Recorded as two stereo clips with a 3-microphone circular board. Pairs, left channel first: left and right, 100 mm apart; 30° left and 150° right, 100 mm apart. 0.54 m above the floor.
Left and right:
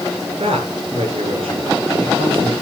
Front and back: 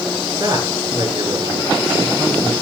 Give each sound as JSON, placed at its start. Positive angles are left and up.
{"t": 0.4, "sound": "a man speaking", "azimuth_deg": -100, "distance_m": 8.5}